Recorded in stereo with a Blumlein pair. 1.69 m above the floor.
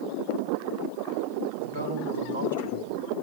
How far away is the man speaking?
About 4 m.